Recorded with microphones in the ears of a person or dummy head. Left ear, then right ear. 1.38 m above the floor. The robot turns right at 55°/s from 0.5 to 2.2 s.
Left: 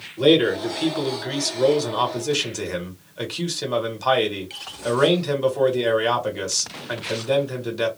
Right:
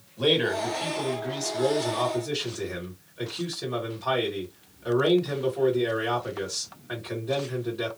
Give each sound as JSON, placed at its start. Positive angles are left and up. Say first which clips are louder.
{"t": 0.2, "sound": "a man speaking", "louder": "left 6 dB", "azimuth_deg": 5, "distance_m": 1.6}